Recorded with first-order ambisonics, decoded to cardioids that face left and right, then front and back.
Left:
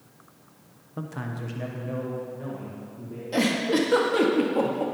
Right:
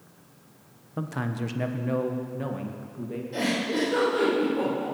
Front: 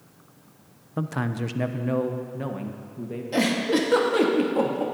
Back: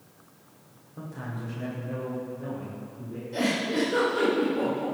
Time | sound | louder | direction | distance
1.0 | a man speaking | right 4 dB, front 10 dB | 10° right | 0.6 m
3.3 | a giggle | left 4 dB, front 4 dB | 40° left | 1.9 m